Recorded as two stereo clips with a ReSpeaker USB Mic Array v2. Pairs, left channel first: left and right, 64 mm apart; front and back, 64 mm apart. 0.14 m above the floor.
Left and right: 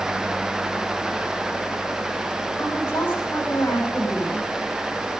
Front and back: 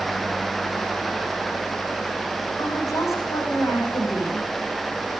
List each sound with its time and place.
2.6 s a woman speaking: 35° left, 6.5 m